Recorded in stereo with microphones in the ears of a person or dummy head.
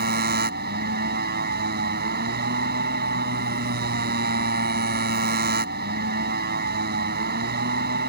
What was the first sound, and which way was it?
A motorcycle, 45° right (ahead or behind).